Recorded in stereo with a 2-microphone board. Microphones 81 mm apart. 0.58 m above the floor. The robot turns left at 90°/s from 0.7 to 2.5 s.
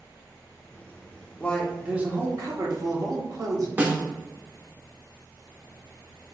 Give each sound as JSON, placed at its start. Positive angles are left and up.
{"t": 1.4, "sound": "a man speaking", "azimuth_deg": 25, "distance_m": 1.1}
{"t": 3.8, "sound": "a snare drum", "side_deg": -20, "distance_m": 0.7}